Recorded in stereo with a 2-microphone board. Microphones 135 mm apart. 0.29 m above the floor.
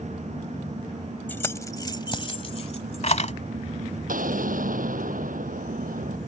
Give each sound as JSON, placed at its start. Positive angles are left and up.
{"t": 1.3, "sound": "keys jangling", "side_deg": 15}
{"t": 4.1, "sound": "an explosion", "side_deg": -85}